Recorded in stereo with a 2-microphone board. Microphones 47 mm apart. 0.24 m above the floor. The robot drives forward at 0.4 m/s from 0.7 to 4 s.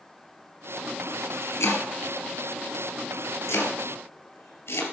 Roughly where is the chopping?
Left.